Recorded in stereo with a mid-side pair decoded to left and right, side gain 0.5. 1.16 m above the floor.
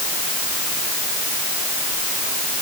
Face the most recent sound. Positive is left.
No sound to turn to.